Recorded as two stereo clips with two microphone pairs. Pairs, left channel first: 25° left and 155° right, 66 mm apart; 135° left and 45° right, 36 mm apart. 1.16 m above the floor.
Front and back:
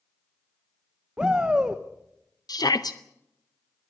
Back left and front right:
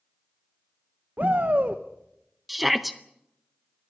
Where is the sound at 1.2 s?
80° right, 1.1 m.